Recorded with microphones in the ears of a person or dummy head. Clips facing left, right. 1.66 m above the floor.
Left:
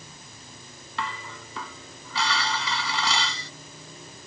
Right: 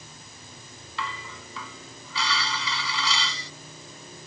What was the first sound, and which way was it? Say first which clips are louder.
Dishes clattering: left 2 dB; 50° left (ahead or behind).